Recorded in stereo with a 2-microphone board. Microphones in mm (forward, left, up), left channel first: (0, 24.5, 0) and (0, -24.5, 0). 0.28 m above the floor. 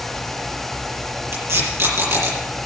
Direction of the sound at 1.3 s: 65° right (ahead or behind).